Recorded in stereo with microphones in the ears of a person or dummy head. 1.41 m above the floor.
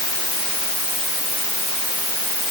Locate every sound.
Only background noise.